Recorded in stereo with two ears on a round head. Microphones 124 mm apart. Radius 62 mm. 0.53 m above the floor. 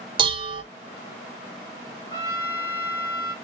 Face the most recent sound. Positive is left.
turn(degrees=25)  # may be behind; listen again after turning